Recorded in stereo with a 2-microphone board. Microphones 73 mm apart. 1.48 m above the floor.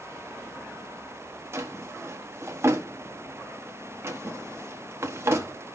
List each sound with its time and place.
1.5 s a drawer: 35° right (ahead or behind), 1.0 m